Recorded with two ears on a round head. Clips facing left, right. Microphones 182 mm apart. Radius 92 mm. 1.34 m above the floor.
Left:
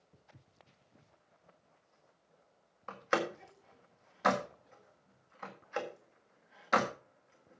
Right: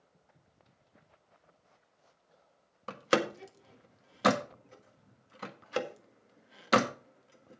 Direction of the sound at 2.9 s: 45° right (ahead or behind).